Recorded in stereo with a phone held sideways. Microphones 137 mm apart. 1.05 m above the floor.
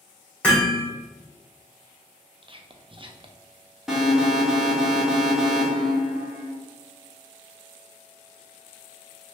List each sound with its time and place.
0.4 s hammering: 10° left (ahead or behind), 1.5 m
2.4 s whispering: 35° right (ahead or behind), 0.5 m
3.9 s an alarm: 5° right (ahead or behind), 0.9 m